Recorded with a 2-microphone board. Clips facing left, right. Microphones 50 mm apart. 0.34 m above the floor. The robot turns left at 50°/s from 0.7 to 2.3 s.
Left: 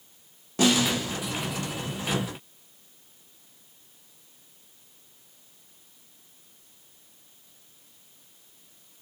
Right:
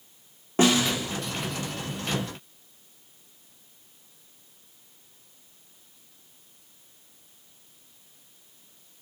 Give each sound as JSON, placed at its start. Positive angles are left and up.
{"t": 0.6, "sound": "a snare drum", "side_deg": -35, "distance_m": 4.5}